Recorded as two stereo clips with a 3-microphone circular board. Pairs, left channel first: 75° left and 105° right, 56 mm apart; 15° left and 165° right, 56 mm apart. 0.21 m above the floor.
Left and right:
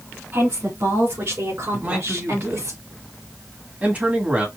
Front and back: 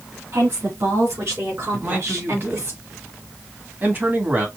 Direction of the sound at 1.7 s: 145° right.